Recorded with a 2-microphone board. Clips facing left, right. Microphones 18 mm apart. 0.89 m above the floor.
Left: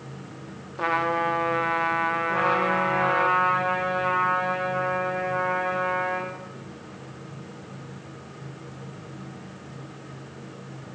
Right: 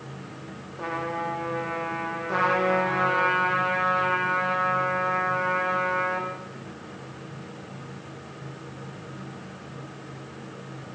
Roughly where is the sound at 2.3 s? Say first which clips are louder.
Right 3 dB; right.